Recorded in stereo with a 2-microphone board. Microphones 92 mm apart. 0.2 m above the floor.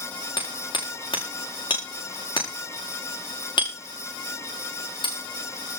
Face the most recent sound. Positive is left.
turn(degrees=60)  # may be behind; listen again after turning